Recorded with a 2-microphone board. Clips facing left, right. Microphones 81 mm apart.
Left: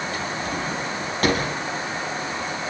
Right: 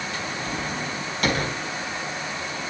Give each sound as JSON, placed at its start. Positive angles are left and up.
{"t": 0.1, "sound": "a drawer", "side_deg": 45, "distance_m": 6.0}